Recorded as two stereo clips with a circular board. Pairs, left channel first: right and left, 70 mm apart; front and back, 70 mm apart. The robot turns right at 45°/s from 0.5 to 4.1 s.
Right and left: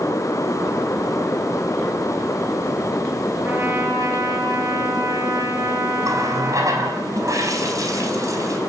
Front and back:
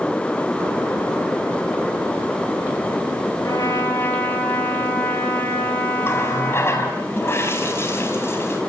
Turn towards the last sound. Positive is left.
turn(degrees=55)